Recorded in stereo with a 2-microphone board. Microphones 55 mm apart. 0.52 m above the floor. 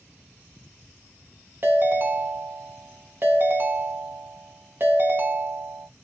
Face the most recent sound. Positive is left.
turn(degrees=-45)  # may be behind; listen again after turning